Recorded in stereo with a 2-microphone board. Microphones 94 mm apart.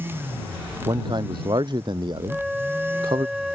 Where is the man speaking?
50° right (ahead or behind).